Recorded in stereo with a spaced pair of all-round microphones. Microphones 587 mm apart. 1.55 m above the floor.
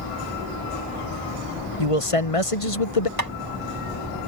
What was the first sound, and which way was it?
A man speaking, 65° left (ahead or behind).